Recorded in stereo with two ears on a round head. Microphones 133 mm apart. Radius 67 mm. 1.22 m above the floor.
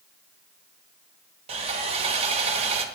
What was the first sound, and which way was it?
Sawing, 45° right (ahead or behind).